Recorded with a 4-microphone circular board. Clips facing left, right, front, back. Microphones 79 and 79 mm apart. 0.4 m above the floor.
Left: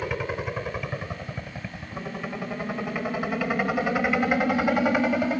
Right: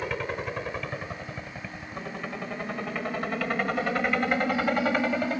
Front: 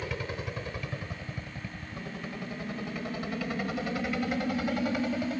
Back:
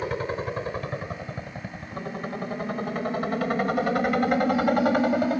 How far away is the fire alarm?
I don't hear a fire alarm.